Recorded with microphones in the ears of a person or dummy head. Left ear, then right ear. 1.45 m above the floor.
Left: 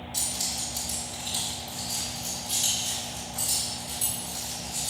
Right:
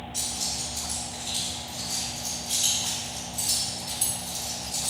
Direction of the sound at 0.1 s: 25° left (ahead or behind).